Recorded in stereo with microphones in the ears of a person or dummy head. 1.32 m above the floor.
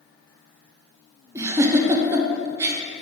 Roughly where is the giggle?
Centre.